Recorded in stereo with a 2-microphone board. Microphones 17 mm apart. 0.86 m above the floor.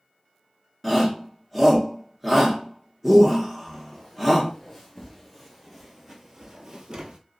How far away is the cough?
I don't hear a cough.